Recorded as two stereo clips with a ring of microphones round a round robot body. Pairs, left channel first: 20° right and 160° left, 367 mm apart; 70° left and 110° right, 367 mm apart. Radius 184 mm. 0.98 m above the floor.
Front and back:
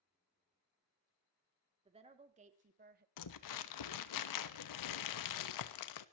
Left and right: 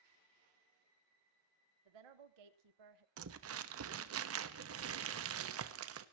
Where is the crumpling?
60° right, 1.1 m.